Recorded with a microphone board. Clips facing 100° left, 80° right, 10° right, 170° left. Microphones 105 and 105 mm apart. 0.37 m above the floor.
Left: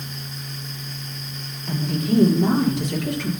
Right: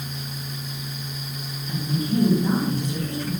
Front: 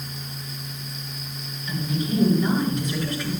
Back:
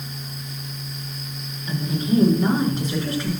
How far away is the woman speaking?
About 6.5 m.